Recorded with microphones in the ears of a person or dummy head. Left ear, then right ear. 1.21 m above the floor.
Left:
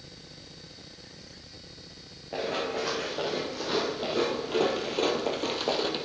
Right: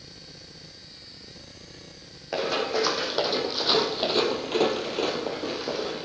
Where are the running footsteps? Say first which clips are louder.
Right 5 dB; 60° right (ahead or behind), 4 m; by 6.1 s 45° left (ahead or behind), 2 m.